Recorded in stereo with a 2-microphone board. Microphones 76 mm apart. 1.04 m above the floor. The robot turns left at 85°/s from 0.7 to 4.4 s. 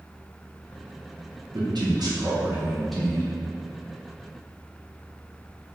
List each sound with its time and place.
1.5 s a man speaking: 65° right, 0.7 m; by 3.3 s 150° left, 0.7 m